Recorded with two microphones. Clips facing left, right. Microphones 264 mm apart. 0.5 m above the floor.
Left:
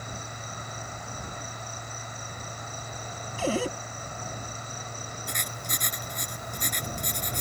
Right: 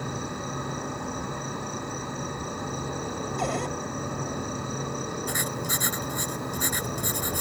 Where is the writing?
5° right (ahead or behind).